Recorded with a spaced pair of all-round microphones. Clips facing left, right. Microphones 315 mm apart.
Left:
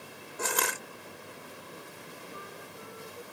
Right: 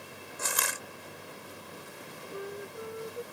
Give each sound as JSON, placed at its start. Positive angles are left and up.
{"t": 0.4, "sound": "crushing", "side_deg": 80}
{"t": 2.3, "sound": "a flute", "side_deg": -70}